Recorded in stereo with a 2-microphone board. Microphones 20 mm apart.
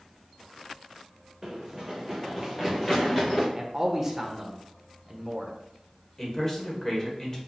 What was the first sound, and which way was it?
Running footsteps, 20° right (ahead or behind).